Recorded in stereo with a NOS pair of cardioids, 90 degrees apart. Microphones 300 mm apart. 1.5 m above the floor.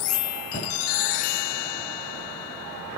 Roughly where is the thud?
Ahead left.